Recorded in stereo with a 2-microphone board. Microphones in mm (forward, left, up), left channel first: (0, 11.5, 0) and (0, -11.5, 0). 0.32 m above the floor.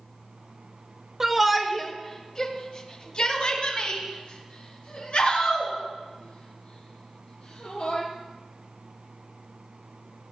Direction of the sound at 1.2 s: 15° right (ahead or behind).